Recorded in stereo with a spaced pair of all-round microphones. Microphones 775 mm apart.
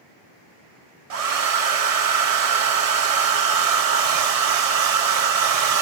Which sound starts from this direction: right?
A hair dryer, at 1.1 s.